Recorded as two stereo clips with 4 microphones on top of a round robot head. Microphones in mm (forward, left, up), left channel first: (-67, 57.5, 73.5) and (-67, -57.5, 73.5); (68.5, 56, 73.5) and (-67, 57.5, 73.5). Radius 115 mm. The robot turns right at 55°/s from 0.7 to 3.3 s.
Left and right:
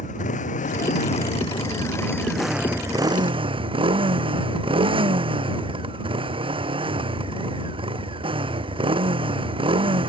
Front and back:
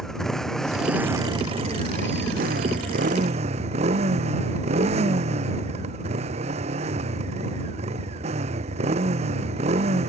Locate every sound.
0.0 s a motorcycle: 85° left; by 10.1 s 130° right